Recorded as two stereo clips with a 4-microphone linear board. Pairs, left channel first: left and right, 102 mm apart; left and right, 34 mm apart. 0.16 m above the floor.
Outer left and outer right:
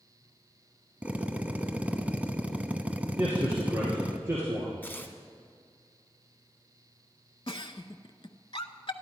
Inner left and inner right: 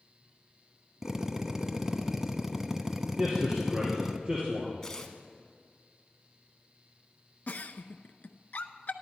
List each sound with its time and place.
1.0 s a drill: 15° right (ahead or behind), 0.7 m
3.2 s a man speaking: 25° right (ahead or behind), 2.5 m
4.8 s tearing paper: 20° left (ahead or behind), 0.9 m
7.5 s a giggle: 60° left (ahead or behind), 0.5 m